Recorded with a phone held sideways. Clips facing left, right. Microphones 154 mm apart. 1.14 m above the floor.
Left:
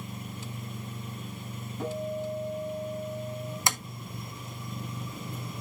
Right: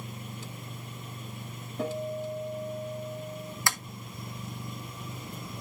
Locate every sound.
1.8 s a guitar: 75° right (ahead or behind), 6.5 m
3.7 s tapping: 20° left (ahead or behind), 0.7 m